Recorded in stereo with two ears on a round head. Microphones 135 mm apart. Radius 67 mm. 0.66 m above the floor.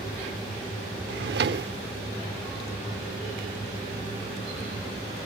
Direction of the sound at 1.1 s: 80° right.